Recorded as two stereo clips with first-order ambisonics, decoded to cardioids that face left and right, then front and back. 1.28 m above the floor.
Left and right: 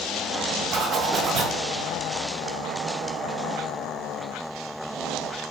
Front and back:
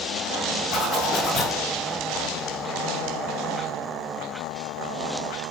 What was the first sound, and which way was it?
A zipper, 45° right.